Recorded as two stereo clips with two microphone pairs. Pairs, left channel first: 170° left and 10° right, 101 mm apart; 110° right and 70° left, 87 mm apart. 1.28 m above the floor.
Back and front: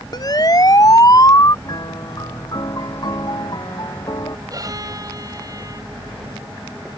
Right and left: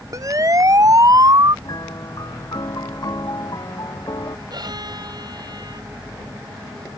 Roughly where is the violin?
Ahead left.